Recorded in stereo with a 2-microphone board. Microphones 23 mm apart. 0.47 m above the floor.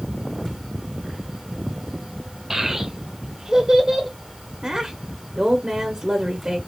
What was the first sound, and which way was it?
A child speaking, 15° right (ahead or behind).